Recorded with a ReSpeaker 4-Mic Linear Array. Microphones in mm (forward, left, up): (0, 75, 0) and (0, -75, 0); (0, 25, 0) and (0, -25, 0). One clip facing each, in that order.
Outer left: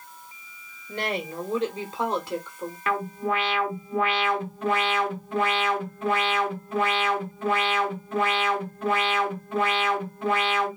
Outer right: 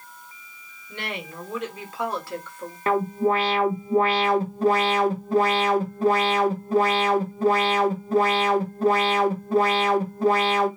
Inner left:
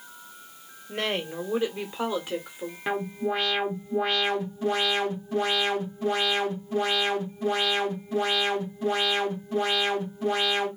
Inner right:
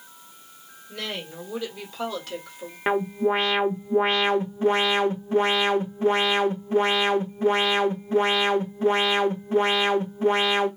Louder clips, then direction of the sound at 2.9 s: Outer right 6 dB, inner right 6 dB; 35° right (ahead or behind).